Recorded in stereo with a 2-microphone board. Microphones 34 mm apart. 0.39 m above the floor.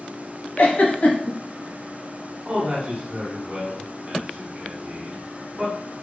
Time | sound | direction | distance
0.6 | a giggle | 60° left (ahead or behind) | 0.7 m
2.5 | a man speaking | 30° right (ahead or behind) | 1.1 m